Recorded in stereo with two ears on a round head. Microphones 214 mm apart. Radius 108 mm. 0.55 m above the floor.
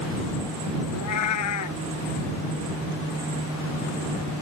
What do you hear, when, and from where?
0.9 s a cat meowing: 75° left (ahead or behind)